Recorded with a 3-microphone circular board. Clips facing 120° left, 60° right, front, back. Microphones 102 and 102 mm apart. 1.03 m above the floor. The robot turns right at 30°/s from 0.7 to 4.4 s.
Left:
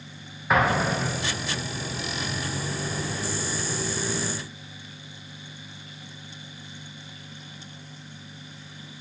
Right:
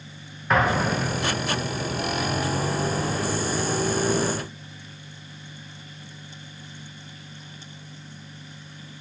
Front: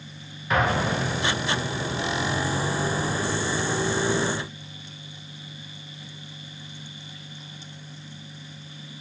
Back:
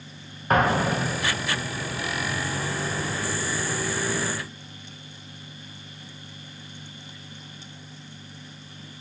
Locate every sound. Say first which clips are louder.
0.5 s an explosion: right 1 dB, back 2 dB; 155° right, 0.6 m; by 1.6 s 130° right, 0.6 m